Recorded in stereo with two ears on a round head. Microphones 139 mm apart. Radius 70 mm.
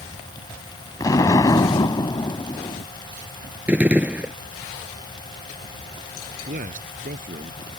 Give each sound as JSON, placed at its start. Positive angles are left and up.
{"t": 1.0, "sound": "an explosion", "side_deg": 20}
{"t": 3.7, "sound": "a gunshot", "side_deg": -10}
{"t": 6.5, "sound": "a man speaking", "side_deg": -55}